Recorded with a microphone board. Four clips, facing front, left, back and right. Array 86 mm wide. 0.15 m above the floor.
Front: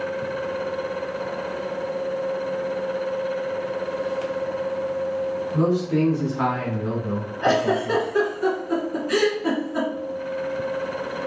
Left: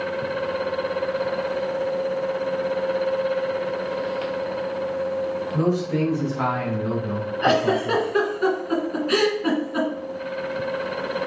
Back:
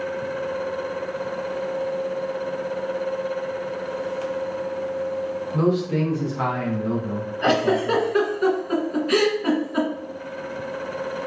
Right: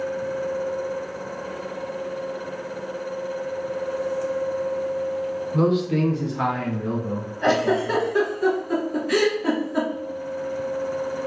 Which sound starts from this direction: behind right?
A man speaking, at 5.5 s.